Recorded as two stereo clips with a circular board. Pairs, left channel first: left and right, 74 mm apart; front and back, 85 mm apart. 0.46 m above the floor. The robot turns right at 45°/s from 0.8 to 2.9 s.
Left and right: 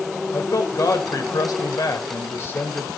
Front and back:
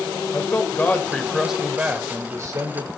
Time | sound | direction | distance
0.3 | a man speaking | 65° left | 2.5 m